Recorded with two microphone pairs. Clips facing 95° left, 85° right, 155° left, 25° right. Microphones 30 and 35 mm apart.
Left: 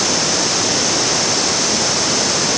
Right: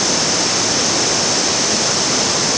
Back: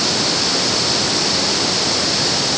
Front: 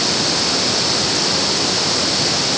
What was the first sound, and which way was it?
Only background noise.